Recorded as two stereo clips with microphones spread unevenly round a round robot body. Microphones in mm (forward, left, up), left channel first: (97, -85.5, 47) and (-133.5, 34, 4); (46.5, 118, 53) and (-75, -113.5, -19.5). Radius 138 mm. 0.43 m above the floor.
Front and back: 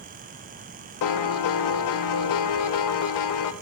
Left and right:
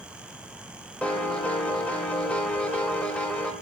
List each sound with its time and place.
1.0 s a piano: 30° right, 0.7 m